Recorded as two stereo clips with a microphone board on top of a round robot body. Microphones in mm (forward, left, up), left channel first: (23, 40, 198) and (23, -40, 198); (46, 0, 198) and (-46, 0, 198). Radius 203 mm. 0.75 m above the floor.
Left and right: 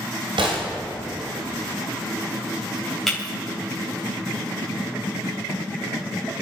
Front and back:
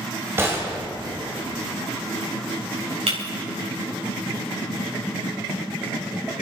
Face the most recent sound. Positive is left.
turn(degrees=175)